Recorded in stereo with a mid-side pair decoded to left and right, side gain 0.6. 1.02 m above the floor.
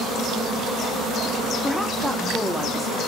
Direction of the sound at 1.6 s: 5° left.